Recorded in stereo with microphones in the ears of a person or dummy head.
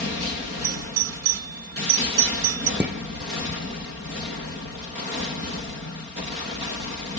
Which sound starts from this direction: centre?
Dishes clattering, at 2.8 s.